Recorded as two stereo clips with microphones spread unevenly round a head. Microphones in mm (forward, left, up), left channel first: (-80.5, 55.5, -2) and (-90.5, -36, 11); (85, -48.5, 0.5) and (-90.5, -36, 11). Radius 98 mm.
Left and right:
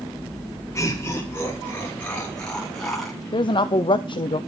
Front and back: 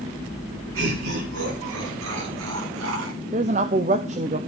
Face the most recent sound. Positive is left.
turn(degrees=115)